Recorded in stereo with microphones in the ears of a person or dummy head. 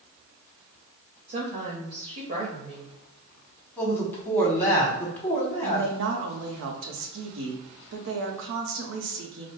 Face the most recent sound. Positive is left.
turn(degrees=-70)  # may be behind; listen again after turning